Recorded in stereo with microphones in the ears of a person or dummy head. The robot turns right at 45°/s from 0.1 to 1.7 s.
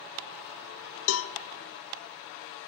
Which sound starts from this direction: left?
A cowbell, at 1.1 s.